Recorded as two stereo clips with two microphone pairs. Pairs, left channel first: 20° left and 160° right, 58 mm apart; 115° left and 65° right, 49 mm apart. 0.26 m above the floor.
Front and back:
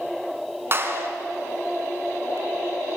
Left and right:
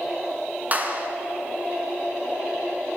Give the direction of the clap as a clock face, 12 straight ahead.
4 o'clock.